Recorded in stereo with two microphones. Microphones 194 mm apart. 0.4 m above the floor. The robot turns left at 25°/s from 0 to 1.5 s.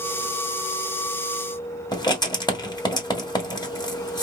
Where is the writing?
20° left (ahead or behind), 1.7 m.